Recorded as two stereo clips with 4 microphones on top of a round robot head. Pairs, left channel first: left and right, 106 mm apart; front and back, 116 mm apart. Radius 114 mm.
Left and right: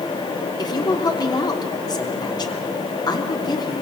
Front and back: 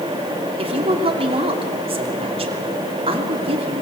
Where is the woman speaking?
140° left, 3 m.